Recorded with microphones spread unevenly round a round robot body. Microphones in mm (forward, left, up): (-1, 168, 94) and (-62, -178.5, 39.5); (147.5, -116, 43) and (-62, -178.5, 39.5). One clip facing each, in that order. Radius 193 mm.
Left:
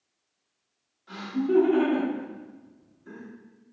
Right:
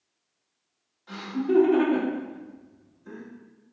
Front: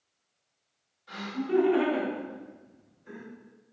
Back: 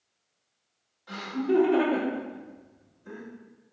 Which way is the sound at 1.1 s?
165° right.